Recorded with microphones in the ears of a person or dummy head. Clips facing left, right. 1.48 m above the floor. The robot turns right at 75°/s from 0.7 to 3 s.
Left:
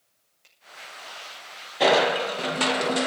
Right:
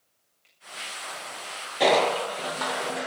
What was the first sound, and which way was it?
A finger snap, 60° left (ahead or behind).